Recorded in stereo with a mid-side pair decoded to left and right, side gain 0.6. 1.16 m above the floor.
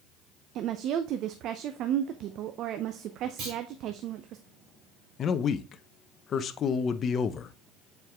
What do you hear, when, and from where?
0.6 s a woman speaking: 60° right, 0.6 m
3.4 s a clunk: 70° right, 3 m
5.2 s a man speaking: 45° left, 0.7 m